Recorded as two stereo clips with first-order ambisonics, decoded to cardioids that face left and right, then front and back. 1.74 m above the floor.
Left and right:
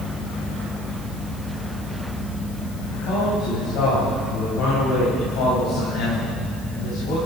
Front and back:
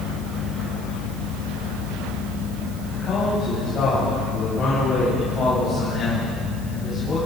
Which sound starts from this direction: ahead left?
A man speaking, at 2.9 s.